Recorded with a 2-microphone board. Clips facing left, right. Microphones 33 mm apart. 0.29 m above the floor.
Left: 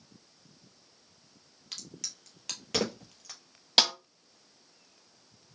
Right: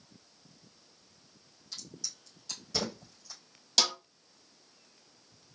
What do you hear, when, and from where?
1.7 s a crack: 85° left, 1.0 m
3.8 s a snare drum: 40° left (ahead or behind), 0.6 m